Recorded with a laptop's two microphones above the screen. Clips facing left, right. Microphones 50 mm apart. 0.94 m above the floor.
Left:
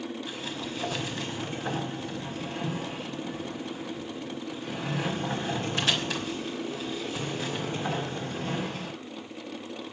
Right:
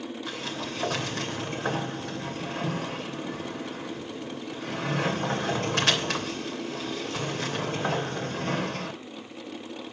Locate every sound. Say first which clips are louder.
0.3 s a sliding door: right 2 dB; 80° right, 3 m